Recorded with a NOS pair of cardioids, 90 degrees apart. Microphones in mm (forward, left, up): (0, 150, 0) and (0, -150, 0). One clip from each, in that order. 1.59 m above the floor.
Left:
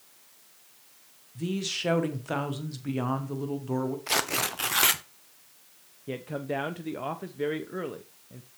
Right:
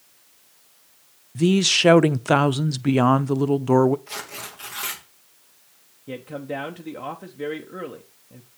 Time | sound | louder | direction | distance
1.4 | a man speaking | right 13 dB | 55° right | 0.6 m
4.1 | tearing paper | left 7 dB | 60° left | 1.0 m
6.1 | a man speaking | right 1 dB | 5° left | 0.7 m